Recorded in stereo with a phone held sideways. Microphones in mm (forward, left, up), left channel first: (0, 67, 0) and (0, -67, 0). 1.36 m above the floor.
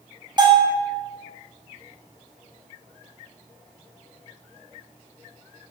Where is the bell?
35° right (ahead or behind), 0.8 m.